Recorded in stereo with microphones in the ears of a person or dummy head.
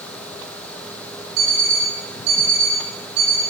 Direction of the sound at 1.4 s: 60° right (ahead or behind).